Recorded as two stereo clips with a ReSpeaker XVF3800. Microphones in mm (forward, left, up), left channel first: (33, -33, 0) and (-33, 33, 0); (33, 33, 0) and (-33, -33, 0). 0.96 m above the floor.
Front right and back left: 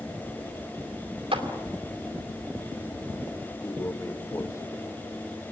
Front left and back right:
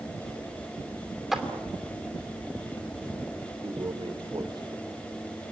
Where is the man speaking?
100° right, 3 m.